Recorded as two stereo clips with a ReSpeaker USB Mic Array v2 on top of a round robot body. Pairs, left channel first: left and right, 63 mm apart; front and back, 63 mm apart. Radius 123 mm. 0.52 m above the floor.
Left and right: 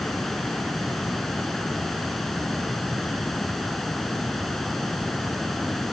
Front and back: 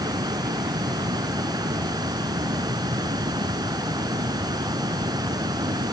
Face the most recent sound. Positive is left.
turn(degrees=175)